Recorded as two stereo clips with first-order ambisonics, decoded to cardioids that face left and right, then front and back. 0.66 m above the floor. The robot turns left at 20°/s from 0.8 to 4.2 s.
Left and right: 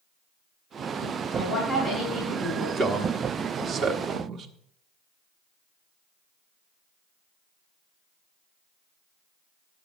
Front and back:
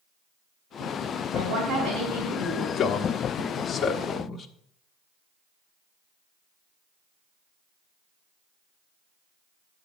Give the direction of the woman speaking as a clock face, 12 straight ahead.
5 o'clock.